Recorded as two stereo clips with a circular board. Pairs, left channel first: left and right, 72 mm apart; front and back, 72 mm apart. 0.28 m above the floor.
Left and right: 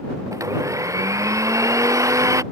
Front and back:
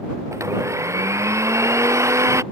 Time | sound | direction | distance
0.3 | a blender | 135° right | ?